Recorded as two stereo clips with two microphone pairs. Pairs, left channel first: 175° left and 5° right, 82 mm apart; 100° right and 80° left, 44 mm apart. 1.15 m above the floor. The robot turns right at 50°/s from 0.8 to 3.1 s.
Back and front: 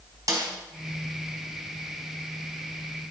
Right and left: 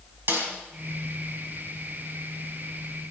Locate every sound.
0.3 s a snare drum: 40° left, 4 m